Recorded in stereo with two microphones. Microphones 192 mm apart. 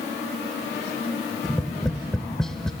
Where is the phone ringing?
I don't hear a phone ringing.